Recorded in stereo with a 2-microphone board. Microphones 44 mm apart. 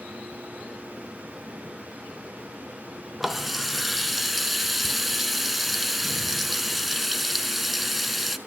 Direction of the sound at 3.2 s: 5° right (ahead or behind).